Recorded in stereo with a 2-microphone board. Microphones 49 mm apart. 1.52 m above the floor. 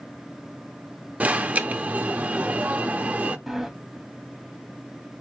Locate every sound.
1.2 s an alarm: 30° right (ahead or behind), 0.5 m
3.5 s a sliding door: 5° right (ahead or behind), 0.7 m